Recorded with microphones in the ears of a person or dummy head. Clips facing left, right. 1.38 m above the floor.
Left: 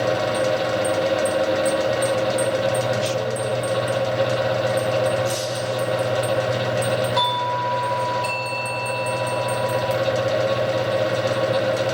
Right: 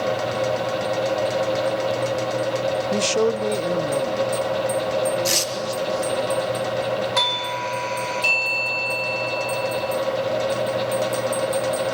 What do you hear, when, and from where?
2.9 s a man speaking: 55° right (ahead or behind), 0.5 m
5.2 s tearing paper: 80° right, 2.0 m
7.2 s a doorbell: 35° right (ahead or behind), 1.0 m